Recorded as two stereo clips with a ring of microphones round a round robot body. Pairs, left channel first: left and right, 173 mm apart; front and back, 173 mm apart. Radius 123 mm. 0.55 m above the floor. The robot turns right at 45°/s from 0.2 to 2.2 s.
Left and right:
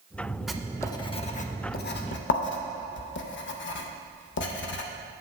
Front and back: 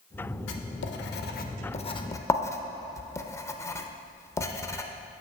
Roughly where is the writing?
Ahead.